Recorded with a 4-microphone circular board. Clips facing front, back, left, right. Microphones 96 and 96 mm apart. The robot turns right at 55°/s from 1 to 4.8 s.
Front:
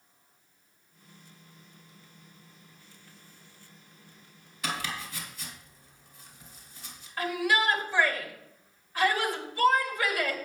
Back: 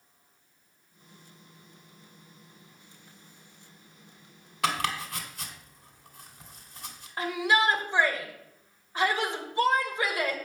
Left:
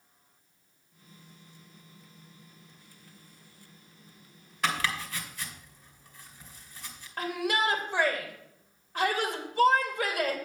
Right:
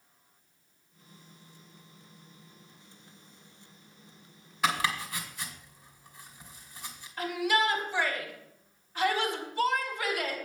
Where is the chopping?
175° right, 2 m; by 7.1 s 165° right, 2 m.